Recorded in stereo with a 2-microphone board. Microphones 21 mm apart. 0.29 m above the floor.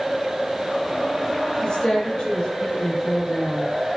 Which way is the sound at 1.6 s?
60° left (ahead or behind).